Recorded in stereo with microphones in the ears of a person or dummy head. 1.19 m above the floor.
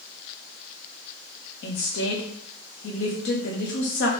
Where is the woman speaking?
70° left (ahead or behind), 0.9 m.